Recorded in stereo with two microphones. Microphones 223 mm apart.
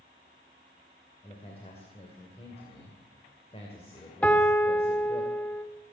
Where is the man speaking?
25° left (ahead or behind), 2.5 m.